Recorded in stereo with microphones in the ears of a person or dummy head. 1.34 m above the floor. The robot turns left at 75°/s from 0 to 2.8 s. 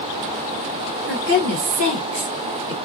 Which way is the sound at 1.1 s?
70° right.